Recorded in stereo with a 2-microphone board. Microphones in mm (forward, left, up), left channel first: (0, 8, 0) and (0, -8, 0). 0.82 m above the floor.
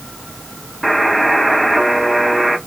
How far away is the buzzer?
About 1.5 m.